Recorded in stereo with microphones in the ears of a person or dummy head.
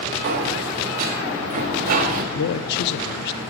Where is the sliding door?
45° right (ahead or behind), 1.3 m.